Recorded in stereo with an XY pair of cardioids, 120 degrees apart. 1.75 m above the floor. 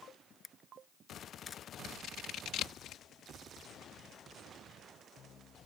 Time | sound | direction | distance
0.4 | a camera shutter | 25° left | ?
1.8 | scissors | 65° left | ?